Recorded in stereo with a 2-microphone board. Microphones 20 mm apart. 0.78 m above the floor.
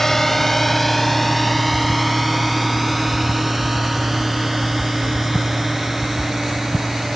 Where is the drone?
20° left (ahead or behind); by 7.2 s 10° right (ahead or behind).